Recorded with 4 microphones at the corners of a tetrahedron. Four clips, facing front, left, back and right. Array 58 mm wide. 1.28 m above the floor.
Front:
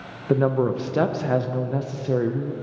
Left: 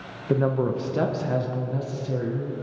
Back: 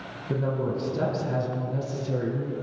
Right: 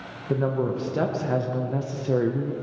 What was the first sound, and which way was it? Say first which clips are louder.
A woman speaking: left 2 dB, front 7 dB; 15° left.